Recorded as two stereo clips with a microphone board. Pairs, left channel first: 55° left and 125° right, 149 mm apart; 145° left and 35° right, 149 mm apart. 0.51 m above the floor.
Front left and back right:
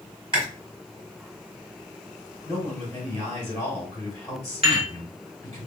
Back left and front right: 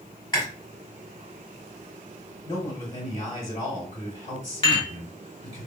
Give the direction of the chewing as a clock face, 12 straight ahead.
5 o'clock.